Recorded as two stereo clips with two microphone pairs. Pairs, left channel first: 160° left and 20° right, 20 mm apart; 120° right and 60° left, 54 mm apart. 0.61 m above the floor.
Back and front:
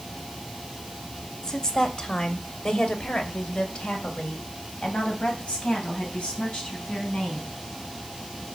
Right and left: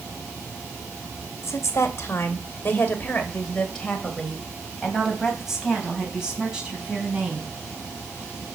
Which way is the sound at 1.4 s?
150° right.